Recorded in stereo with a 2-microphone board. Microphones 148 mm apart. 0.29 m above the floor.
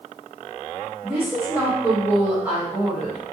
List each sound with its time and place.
1.0 s a woman speaking: 15° right (ahead or behind), 0.9 m